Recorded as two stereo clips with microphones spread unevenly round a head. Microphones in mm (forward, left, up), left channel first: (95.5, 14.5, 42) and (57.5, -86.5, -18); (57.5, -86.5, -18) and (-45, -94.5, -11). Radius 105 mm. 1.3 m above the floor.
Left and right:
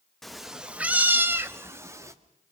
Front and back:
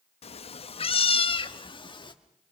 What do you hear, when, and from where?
0.2 s a cat meowing: 5° left, 0.8 m; by 2.1 s 40° right, 1.7 m